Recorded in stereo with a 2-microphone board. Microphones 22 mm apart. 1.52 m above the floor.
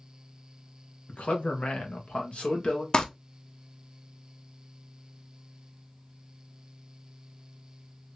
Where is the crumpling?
40° left (ahead or behind), 0.6 m.